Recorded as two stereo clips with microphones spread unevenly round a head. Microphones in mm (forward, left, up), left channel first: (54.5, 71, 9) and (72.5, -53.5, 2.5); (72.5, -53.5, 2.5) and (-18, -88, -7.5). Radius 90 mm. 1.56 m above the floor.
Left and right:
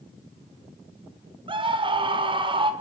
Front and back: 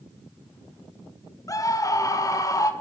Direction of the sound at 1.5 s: 35° right.